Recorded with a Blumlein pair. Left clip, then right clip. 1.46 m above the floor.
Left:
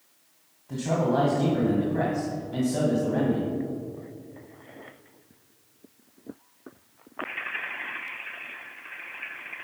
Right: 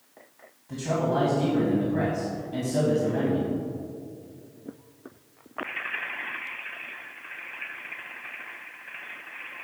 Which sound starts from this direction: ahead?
A man speaking, at 0.7 s.